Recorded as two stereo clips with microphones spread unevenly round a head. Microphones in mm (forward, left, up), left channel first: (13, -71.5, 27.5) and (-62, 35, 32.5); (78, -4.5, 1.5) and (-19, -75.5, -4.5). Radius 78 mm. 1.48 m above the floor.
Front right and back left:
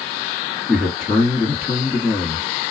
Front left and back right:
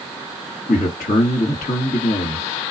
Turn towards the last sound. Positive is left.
turn(degrees=40)